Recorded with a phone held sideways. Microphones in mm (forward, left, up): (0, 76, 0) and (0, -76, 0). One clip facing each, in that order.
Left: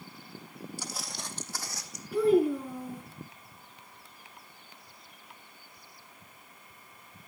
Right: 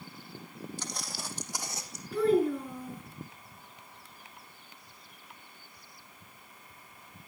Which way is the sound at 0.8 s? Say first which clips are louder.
Even; 10° left (ahead or behind).